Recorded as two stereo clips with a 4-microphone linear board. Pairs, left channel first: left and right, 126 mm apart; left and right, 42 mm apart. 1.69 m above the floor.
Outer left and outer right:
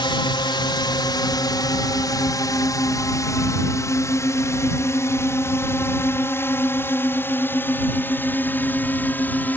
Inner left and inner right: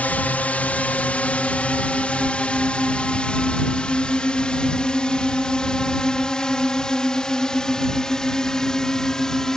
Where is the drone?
40° left (ahead or behind); by 9.6 s 15° left (ahead or behind).